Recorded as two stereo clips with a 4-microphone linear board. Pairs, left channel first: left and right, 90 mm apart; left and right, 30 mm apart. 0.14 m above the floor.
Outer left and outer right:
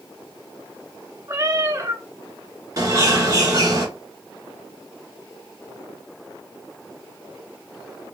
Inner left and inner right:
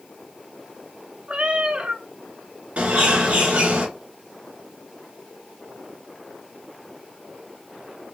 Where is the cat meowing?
35° right (ahead or behind), 0.6 m.